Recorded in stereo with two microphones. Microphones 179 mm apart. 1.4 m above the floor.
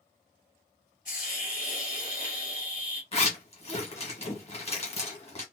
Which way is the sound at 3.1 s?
35° left (ahead or behind).